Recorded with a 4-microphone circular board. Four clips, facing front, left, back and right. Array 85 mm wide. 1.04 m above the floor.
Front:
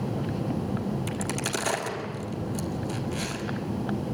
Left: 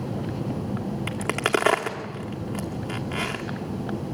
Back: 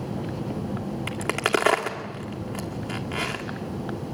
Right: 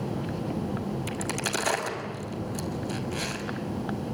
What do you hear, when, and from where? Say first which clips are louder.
1.1 s a crack: left 6 dB, back 5 dB; 135° left, 1.9 m